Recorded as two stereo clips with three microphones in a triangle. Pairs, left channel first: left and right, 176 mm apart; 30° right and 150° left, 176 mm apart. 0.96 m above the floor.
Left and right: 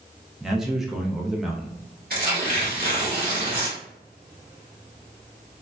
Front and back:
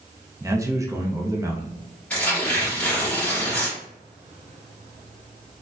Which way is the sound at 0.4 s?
175° right.